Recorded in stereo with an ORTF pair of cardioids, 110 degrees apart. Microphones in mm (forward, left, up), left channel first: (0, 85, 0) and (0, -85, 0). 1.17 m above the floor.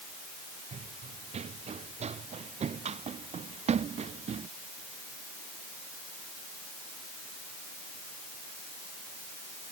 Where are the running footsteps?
40° right.